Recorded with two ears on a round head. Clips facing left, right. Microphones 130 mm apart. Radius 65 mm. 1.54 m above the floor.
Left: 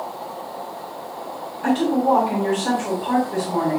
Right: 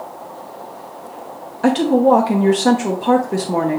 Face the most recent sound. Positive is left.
turn(degrees=-70)  # may be behind; listen again after turning